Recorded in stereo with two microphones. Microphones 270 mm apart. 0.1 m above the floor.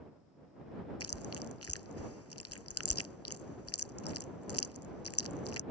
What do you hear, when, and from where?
1.0 s chewing: 60° left (ahead or behind)